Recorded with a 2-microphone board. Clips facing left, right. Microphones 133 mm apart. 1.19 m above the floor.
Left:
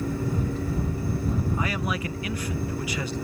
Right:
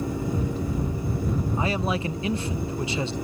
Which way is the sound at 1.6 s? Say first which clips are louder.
Right 3 dB; 25° right (ahead or behind).